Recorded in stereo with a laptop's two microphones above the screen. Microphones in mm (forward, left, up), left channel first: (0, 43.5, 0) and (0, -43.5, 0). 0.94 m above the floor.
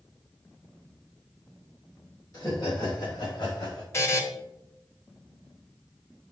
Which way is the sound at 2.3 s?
45° left (ahead or behind).